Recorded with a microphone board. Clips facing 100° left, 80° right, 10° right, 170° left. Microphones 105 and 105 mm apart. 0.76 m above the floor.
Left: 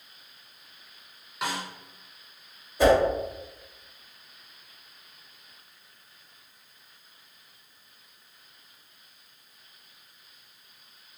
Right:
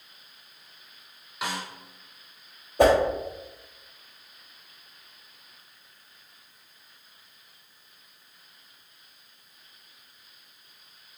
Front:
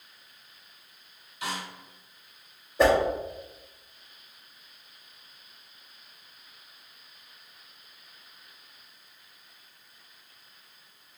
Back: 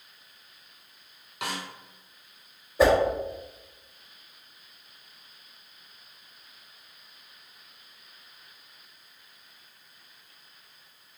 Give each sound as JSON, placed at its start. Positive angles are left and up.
{"t": 1.4, "sound": "a snare drum", "azimuth_deg": -170, "distance_m": 1.0}
{"t": 2.8, "sound": "a whoosh", "azimuth_deg": -105, "distance_m": 1.0}